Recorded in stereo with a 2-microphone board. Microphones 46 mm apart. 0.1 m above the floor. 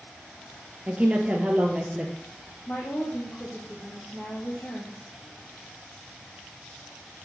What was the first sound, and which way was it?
A woman speaking, 25° right (ahead or behind).